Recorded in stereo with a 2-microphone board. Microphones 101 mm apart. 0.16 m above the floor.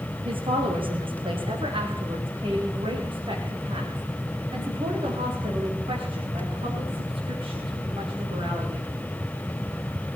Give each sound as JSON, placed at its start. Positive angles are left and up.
{"t": 0.2, "sound": "a woman speaking", "side_deg": -55, "distance_m": 7.5}